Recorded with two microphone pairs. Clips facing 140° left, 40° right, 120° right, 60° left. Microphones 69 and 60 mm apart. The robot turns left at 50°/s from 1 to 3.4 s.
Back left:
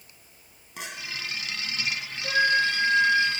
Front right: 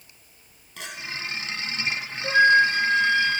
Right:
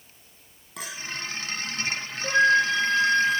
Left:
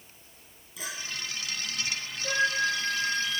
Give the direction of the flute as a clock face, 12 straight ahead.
3 o'clock.